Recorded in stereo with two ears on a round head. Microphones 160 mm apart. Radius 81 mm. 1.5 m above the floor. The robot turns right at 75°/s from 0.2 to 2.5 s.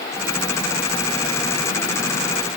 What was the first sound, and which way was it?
Only background noise.